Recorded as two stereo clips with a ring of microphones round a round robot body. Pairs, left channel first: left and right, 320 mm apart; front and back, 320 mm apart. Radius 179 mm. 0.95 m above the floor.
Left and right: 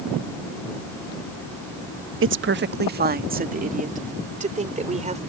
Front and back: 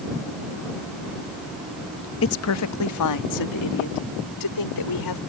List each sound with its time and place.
2.2 s a woman speaking: 45° right; by 5.2 s 20° right